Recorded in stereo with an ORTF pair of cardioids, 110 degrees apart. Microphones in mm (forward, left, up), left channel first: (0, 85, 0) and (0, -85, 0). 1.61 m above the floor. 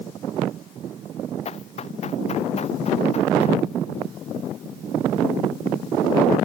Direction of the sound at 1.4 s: 40° left.